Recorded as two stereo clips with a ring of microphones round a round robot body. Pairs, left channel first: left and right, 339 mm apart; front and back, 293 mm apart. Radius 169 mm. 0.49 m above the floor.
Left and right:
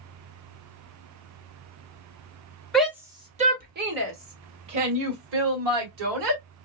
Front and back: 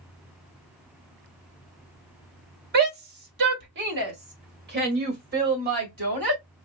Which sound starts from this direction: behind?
A shout, at 2.7 s.